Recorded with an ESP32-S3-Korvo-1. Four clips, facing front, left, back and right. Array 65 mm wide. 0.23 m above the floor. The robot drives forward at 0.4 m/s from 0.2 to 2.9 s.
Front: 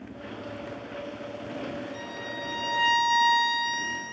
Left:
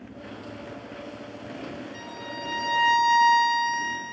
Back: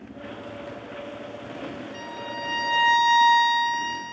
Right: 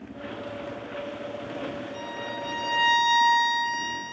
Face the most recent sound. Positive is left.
turn(degrees=155)